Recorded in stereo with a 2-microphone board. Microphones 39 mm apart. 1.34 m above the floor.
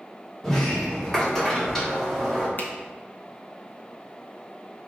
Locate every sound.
0.4 s a sliding door: 5° left (ahead or behind), 1.2 m
2.6 s a finger snap: 45° left (ahead or behind), 0.6 m